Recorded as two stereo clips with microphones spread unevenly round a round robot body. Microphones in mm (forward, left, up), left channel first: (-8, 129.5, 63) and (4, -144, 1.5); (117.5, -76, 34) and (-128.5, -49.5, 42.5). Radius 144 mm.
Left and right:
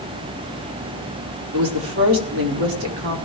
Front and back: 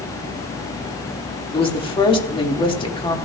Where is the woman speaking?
75° right, 1.8 m.